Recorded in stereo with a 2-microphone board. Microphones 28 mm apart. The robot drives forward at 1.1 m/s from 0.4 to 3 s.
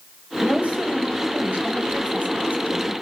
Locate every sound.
0.4 s a woman speaking: 50° right (ahead or behind), 7.5 m; by 2.9 s 70° right (ahead or behind), 6.5 m